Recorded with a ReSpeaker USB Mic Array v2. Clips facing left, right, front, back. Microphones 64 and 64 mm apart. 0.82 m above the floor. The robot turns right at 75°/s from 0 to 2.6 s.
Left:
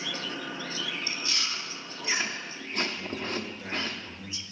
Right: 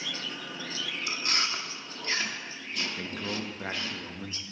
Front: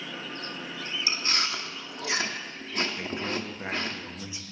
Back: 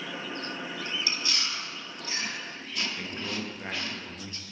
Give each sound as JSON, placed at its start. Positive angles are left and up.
{"t": 1.1, "sound": "chewing", "azimuth_deg": -65, "distance_m": 0.9}
{"t": 3.0, "sound": "a man speaking", "azimuth_deg": -75, "distance_m": 0.9}